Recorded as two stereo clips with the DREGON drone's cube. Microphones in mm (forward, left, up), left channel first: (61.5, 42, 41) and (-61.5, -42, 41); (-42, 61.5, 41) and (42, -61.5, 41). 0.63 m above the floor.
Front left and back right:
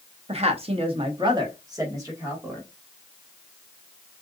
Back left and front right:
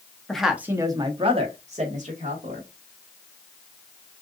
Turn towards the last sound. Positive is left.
turn(degrees=-75)